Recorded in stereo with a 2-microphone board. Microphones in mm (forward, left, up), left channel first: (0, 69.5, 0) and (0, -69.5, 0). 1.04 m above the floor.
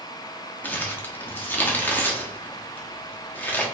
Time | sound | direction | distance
0.6 | crumpling | 15° left (ahead or behind) | 0.8 m